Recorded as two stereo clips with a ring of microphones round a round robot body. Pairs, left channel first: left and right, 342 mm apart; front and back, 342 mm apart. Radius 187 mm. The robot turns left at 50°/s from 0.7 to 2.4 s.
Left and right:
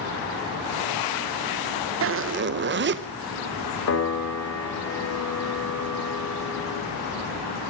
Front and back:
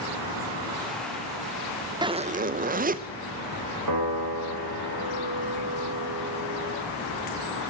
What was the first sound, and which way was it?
A zipper, 110° right.